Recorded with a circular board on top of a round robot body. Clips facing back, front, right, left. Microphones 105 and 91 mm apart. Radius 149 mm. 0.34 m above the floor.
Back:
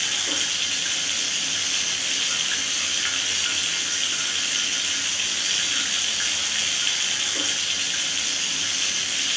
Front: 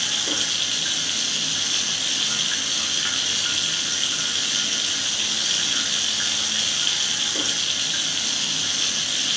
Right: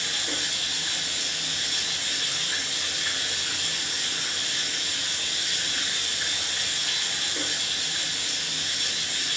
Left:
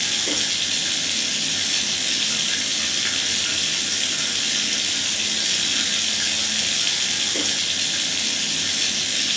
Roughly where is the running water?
Left.